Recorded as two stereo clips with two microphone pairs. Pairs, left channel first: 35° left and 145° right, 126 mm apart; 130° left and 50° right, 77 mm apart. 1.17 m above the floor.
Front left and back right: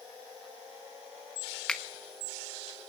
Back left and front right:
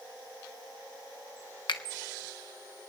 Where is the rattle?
I don't hear a rattle.